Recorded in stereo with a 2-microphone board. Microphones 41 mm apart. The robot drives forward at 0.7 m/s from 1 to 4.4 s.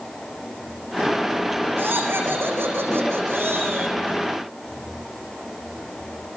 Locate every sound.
1.8 s laughter: 65° right (ahead or behind), 7 m; by 4.0 s 75° right (ahead or behind), 6.5 m